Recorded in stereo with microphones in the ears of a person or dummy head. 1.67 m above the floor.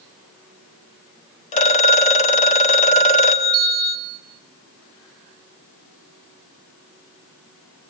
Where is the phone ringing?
35° left (ahead or behind), 1.7 m.